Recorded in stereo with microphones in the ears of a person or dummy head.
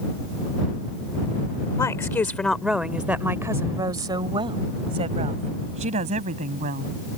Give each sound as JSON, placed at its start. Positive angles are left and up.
{"t": 1.8, "sound": "a woman speaking", "side_deg": 15}